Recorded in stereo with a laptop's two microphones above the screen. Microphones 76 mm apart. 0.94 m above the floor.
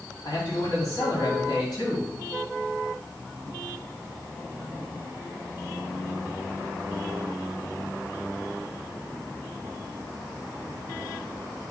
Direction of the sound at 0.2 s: 60° left (ahead or behind).